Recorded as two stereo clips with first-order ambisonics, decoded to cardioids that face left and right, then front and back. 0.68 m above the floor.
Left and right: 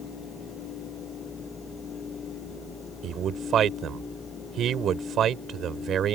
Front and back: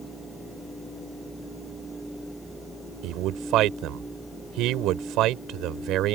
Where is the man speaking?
145° right.